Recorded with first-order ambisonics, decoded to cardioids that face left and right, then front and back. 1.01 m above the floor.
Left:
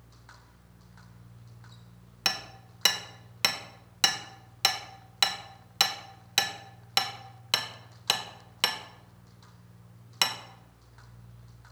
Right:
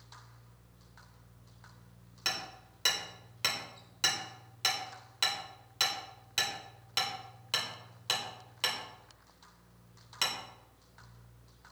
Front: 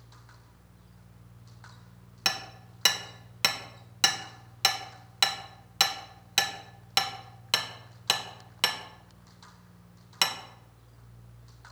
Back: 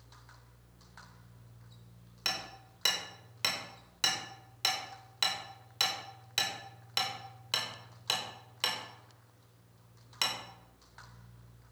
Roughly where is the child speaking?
No child speaking in this recording.